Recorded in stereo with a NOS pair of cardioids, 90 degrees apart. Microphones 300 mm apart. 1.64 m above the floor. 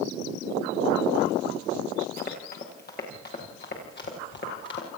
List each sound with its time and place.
2.2 s running footsteps: 30° left, 7.5 m; by 4.9 s 40° left, 10 m